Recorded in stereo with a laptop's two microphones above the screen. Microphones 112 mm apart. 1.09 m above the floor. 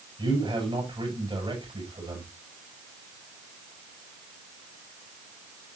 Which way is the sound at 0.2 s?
45° right (ahead or behind).